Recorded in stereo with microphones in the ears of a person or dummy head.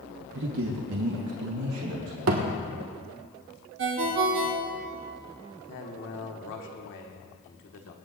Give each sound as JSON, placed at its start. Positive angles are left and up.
{"t": 0.3, "sound": "a man speaking", "side_deg": -55, "distance_m": 0.9}
{"t": 2.3, "sound": "a thud", "side_deg": -70, "distance_m": 1.3}
{"t": 3.8, "sound": "a ringtone", "side_deg": -65, "distance_m": 1.2}
{"t": 5.7, "sound": "a man speaking", "side_deg": 55, "distance_m": 1.3}